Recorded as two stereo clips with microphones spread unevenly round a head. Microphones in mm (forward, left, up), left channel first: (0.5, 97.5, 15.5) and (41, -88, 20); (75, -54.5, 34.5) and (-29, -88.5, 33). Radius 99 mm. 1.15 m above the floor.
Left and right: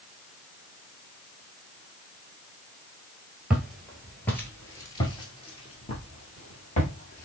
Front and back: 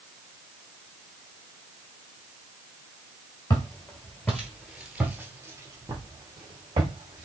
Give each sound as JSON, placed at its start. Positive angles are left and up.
{"t": 3.5, "sound": "footsteps", "azimuth_deg": 0, "distance_m": 1.3}